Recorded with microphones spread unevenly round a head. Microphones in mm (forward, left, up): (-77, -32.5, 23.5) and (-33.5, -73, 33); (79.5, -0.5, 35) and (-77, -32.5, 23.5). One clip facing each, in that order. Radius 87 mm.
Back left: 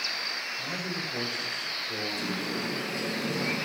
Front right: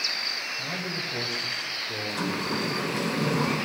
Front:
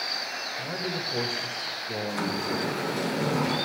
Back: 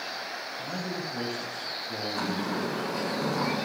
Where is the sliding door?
40° right, 6 m.